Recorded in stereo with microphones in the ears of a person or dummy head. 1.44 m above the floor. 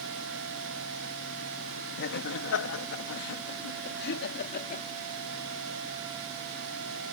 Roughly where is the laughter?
Left.